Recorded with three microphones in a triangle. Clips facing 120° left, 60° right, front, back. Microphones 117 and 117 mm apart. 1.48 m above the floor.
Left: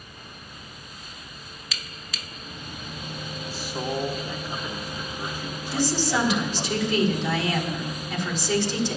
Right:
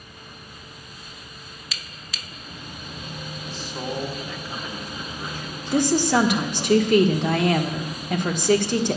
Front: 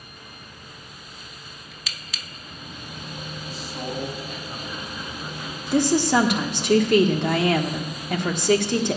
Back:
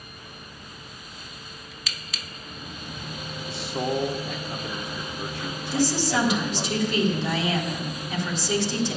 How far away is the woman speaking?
About 1.3 m.